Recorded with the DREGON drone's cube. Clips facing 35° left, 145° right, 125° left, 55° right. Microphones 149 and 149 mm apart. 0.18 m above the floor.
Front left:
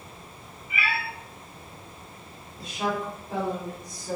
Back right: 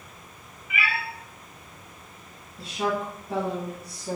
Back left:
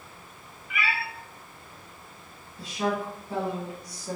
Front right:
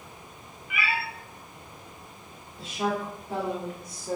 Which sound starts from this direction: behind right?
A cat meowing, at 0.7 s.